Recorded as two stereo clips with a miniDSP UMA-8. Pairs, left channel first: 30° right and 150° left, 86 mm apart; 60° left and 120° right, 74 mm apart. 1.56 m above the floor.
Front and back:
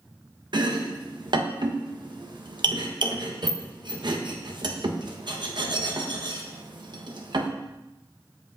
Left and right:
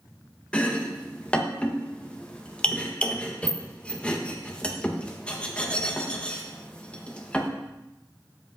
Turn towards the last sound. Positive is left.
turn(degrees=135)